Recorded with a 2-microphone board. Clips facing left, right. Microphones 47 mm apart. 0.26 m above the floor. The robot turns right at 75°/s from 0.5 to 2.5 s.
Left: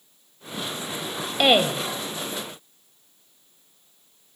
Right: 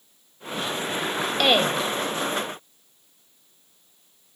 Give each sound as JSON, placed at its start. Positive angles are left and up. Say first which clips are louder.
{"t": 1.4, "sound": "a woman speaking", "louder": "left 2 dB", "side_deg": 15, "distance_m": 0.9}